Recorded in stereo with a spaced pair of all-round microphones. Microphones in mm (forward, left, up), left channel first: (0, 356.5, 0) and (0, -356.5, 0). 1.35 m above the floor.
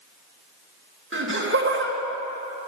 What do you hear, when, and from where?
1.1 s laughter: 15° right (ahead or behind), 1.6 m